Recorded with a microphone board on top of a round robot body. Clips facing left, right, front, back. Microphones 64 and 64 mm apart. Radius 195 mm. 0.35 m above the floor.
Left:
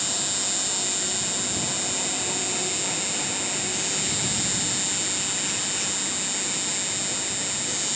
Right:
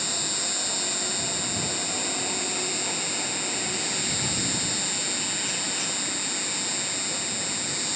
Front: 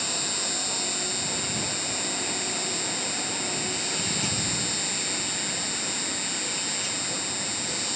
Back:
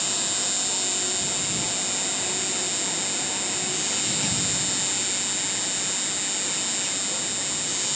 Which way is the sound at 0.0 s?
50° right.